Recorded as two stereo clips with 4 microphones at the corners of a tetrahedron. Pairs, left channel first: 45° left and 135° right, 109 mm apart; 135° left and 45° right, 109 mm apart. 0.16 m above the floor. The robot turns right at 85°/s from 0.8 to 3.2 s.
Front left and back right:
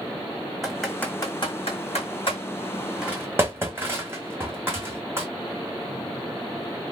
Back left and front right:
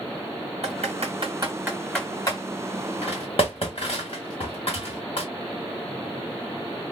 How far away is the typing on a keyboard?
About 1.9 m.